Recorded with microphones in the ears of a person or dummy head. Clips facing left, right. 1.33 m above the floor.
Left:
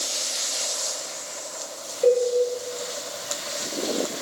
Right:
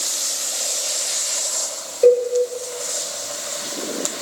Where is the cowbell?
55° right (ahead or behind), 1.1 m.